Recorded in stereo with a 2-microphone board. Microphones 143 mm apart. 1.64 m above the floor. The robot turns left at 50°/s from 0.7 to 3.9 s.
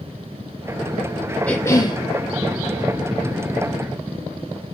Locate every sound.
1.5 s a cough: 10° left (ahead or behind), 0.8 m; by 2.0 s 35° left (ahead or behind), 0.8 m